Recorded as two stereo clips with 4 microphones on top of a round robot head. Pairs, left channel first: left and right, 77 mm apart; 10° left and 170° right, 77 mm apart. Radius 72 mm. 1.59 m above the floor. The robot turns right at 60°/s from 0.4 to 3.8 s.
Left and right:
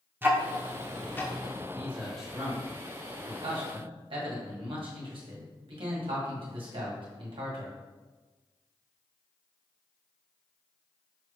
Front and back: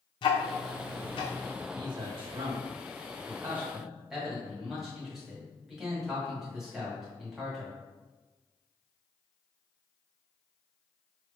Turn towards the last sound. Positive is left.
turn(degrees=-85)